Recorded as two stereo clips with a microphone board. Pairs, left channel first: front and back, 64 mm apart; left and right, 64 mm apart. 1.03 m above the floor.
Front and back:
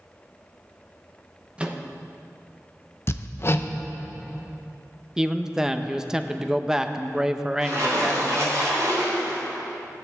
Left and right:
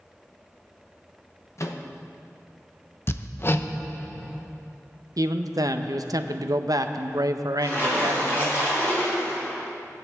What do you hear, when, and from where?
1.6 s a microwave: 110° left, 0.8 m
3.1 s hammering: 45° left, 0.5 m
5.2 s a man speaking: 100° right, 0.6 m
7.6 s a splash: 140° left, 4.5 m